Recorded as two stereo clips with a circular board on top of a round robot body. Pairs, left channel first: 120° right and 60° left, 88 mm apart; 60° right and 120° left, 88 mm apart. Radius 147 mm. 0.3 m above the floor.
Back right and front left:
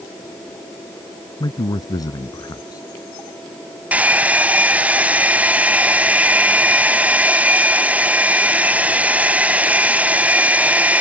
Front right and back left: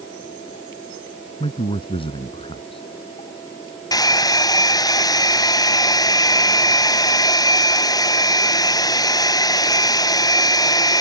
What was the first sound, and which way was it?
A man speaking, 75° right.